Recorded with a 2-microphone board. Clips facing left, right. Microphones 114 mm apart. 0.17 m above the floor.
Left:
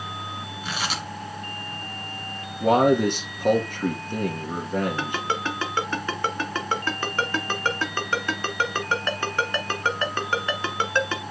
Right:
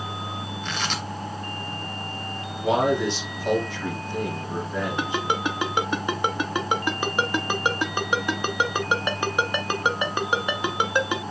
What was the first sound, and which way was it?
Tearing paper, 10° left (ahead or behind).